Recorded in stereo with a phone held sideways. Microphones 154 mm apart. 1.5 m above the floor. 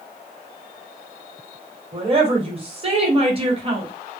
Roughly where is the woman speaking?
Right.